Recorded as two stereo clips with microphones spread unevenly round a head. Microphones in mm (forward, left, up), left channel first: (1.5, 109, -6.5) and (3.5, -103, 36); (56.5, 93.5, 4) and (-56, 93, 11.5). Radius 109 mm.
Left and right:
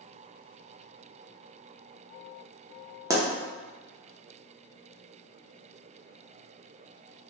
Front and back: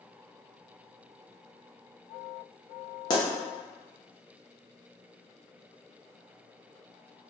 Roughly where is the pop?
Ahead right.